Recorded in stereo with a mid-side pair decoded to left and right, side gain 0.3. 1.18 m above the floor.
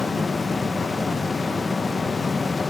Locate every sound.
0.0 s a fan: 45° left, 1.0 m